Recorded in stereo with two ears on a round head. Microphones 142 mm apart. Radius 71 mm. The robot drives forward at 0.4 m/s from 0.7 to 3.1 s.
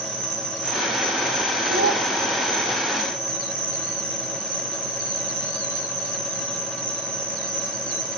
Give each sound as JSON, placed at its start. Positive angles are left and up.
{"t": 0.0, "sound": "an insect", "side_deg": -35, "distance_m": 6.5}
{"t": 1.7, "sound": "a child speaking", "side_deg": -80, "distance_m": 1.6}